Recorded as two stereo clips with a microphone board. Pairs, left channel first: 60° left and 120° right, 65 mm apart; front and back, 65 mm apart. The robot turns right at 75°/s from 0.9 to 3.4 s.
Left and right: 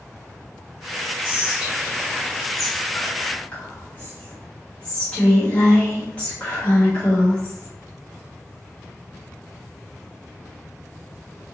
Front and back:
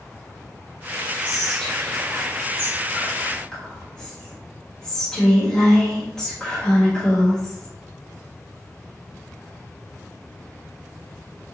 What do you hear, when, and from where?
1.2 s whispering: 105° right, 1.1 m; by 7.7 s 60° left, 1.1 m